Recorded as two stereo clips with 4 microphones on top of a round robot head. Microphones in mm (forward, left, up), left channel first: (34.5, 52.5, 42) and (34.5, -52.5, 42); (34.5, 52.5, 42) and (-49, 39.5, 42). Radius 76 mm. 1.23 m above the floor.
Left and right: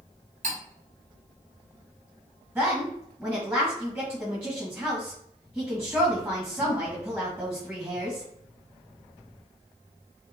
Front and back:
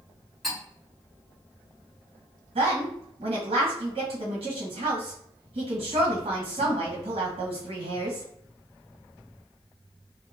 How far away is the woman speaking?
About 1.5 m.